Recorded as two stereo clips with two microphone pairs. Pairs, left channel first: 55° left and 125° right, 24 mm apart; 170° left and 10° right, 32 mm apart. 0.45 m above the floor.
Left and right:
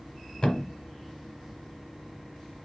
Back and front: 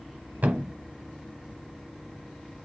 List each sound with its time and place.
0.4 s a thud: straight ahead, 1.0 m